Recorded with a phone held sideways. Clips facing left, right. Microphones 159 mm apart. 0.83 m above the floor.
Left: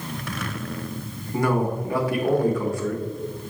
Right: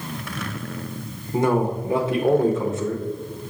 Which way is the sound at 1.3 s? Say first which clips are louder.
Right 2 dB; 25° right (ahead or behind).